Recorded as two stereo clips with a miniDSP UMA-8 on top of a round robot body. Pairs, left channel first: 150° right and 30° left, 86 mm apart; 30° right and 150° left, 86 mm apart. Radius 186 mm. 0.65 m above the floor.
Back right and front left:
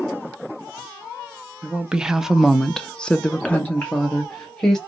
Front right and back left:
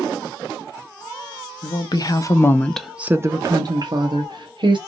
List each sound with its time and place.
1.6 s a woman speaking: 50° right, 1.0 m; by 4.8 s 135° left, 1.3 m